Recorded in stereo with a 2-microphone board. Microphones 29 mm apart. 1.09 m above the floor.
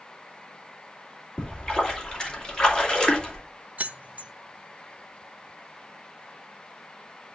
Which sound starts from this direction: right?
Keys jangling, at 3.8 s.